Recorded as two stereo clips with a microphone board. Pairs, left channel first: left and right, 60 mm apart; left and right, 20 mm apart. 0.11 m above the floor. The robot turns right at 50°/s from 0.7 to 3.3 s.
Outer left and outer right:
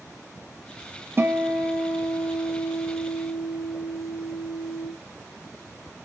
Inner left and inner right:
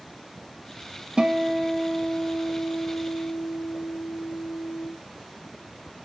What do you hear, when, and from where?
1.2 s a guitar: 45° right, 0.9 m; by 4.9 s 60° left, 0.9 m